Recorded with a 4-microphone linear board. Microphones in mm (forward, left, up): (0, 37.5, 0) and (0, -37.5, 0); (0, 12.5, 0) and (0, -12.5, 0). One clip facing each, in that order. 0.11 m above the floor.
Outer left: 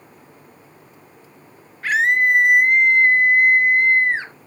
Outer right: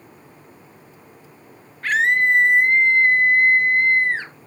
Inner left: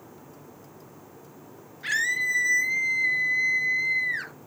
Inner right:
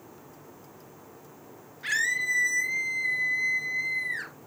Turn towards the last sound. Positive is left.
turn(degrees=15)  # may be behind; listen again after turning